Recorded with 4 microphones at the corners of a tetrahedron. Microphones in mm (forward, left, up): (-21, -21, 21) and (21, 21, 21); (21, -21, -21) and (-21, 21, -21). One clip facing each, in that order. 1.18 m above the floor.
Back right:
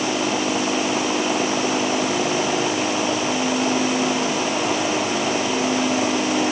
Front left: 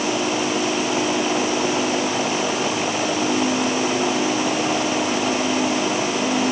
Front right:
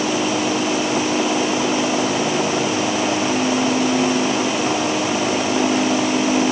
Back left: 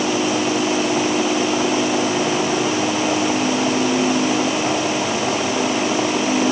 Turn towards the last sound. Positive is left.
No sound to turn to.